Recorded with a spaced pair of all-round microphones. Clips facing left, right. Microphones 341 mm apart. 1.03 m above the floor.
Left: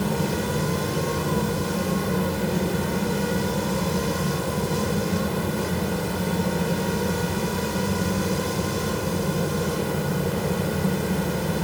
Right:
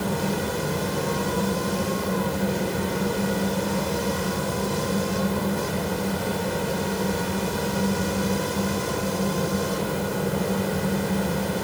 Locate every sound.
0.0 s a fan: 40° left (ahead or behind), 2 m